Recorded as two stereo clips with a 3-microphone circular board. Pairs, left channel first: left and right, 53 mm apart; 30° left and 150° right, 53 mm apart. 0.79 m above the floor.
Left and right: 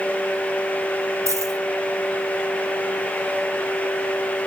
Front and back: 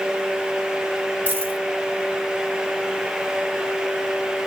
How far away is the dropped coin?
About 3 m.